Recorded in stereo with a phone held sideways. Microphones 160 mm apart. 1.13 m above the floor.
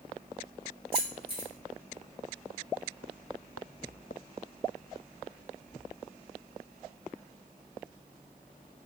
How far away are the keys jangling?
About 2.5 m.